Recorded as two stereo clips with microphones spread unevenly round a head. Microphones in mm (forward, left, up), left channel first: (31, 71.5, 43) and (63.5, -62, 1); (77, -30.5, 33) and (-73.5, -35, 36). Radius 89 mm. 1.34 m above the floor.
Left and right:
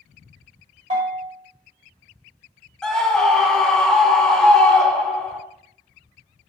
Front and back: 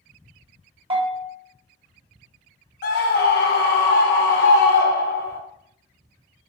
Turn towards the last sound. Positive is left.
turn(degrees=15)